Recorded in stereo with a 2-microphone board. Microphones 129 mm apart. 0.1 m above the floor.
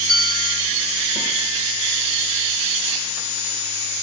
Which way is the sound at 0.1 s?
35° left (ahead or behind).